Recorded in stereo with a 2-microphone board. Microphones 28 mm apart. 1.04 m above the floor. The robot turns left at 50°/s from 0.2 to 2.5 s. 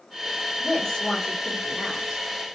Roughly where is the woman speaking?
Ahead left.